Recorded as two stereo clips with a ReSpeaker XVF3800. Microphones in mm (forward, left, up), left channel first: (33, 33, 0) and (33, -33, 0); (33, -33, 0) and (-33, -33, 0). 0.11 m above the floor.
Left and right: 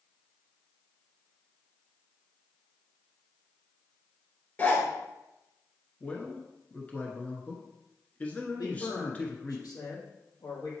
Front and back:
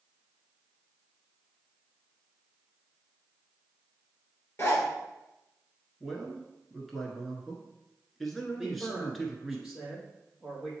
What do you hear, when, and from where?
4.6 s a zipper: 40° left, 2.5 m
6.0 s a man speaking: 85° left, 1.1 m
8.6 s a man speaking: 95° left, 3 m